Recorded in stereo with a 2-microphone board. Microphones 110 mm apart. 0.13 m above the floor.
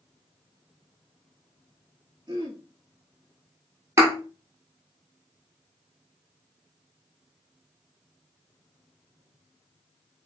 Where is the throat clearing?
45° right (ahead or behind), 0.8 m.